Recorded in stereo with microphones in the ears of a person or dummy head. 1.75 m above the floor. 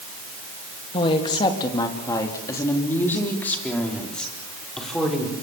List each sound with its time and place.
0.9 s a woman speaking: 30° left (ahead or behind), 3 m; by 5.3 s centre (ahead or behind), 6 m